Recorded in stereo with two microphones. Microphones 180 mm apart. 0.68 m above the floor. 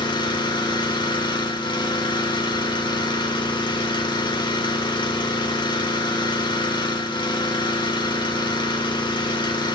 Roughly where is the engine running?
Left.